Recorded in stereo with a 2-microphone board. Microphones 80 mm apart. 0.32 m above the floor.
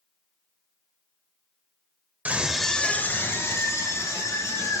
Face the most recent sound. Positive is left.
turn(degrees=40)  # may be behind; listen again after turning